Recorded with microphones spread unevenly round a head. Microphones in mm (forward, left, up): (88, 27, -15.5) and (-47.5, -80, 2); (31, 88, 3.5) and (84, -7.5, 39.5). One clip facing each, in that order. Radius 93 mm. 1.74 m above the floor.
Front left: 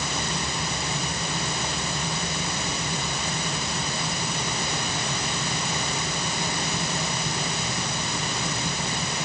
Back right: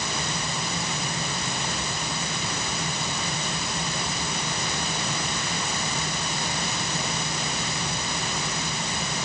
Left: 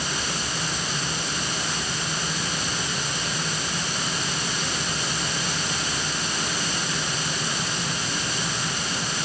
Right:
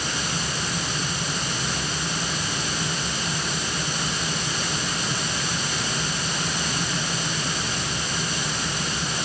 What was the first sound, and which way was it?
Only background noise.